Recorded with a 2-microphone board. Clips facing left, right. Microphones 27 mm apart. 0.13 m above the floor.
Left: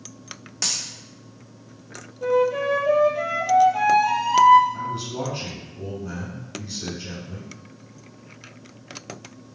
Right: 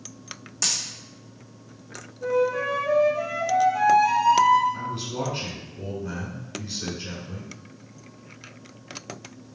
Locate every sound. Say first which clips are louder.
0.6 s a dropped coin: even; 30° left (ahead or behind), 1.1 m
2.2 s a flute: left 3 dB; 50° left (ahead or behind), 0.7 m
4.7 s a man speaking: left 1 dB; 10° right (ahead or behind), 1.1 m